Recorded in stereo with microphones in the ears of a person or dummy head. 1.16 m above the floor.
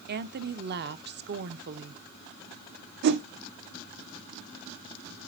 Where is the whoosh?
55° right (ahead or behind), 0.6 m.